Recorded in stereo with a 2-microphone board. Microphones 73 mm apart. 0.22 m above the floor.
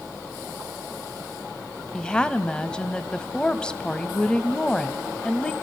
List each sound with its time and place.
1.9 s a woman speaking: 10° left (ahead or behind), 0.9 m